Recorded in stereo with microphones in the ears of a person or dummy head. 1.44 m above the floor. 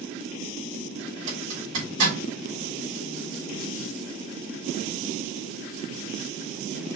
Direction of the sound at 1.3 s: 75° right (ahead or behind).